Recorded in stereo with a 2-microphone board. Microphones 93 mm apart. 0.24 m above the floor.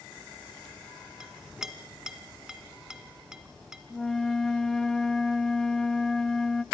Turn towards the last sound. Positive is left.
turn(degrees=5)  # may be behind; listen again after turning